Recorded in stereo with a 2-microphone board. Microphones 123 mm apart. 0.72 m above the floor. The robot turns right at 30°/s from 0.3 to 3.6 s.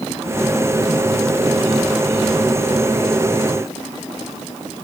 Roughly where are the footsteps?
I don't hear footsteps.